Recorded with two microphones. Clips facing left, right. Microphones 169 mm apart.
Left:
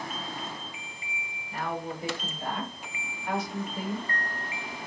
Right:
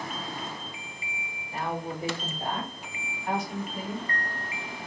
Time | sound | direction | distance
1.5 | a woman speaking | 30° right (ahead or behind) | 1.4 m